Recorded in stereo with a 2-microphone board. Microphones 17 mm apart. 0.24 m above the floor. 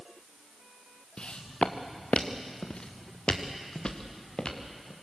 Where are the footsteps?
70° left (ahead or behind), 1.7 m; by 4.9 s 40° left (ahead or behind), 3.5 m.